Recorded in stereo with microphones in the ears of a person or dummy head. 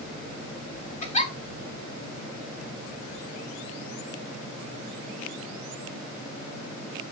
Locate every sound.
1.0 s a giggle: 30° left (ahead or behind), 1.2 m